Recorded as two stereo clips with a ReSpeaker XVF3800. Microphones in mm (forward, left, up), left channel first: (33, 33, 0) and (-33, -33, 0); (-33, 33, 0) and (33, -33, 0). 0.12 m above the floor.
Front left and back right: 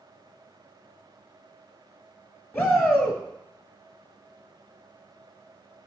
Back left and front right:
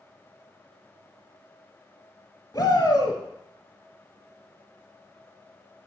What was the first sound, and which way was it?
A shout, 105° left.